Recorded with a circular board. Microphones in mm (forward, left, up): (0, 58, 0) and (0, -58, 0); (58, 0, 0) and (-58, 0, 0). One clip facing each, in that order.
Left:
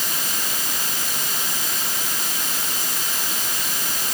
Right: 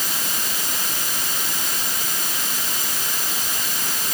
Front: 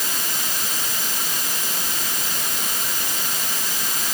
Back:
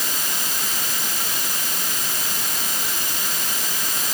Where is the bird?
No bird in this recording.